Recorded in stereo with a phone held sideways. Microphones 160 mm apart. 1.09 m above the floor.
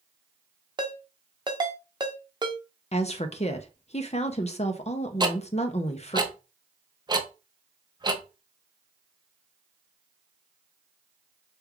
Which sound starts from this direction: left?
A woman speaking, at 2.9 s.